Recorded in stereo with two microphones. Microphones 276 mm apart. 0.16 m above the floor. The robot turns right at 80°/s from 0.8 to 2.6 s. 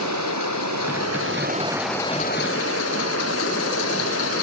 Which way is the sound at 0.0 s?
85° right.